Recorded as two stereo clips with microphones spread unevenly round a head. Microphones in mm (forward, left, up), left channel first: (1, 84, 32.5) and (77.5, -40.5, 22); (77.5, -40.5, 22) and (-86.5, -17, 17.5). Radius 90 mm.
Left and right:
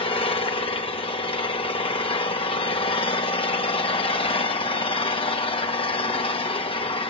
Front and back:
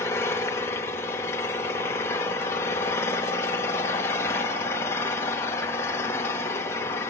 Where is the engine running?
70° left, 2 m.